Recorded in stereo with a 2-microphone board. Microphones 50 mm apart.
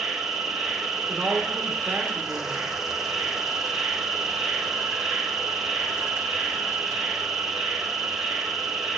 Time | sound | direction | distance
0.0 | an insect | 5° right (ahead or behind) | 1.8 m
1.1 | a woman speaking | 35° right (ahead or behind) | 1.1 m